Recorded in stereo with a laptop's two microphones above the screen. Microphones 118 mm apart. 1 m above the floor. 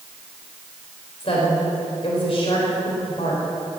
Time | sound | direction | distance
1.2 | a woman speaking | 50° left (ahead or behind) | 3.5 m